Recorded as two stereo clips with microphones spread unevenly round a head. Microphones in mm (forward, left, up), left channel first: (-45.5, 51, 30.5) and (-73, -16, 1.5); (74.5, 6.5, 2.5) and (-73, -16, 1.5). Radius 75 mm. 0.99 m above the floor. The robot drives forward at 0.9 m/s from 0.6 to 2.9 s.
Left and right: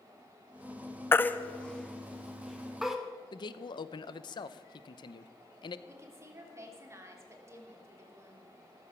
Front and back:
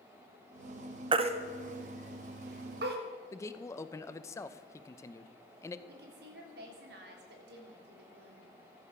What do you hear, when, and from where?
1.1 s a baby crying: 130° left, 0.9 m; by 3.0 s 165° left, 2 m
3.3 s a man speaking: 75° left, 0.8 m
5.9 s a woman speaking: 155° right, 3.5 m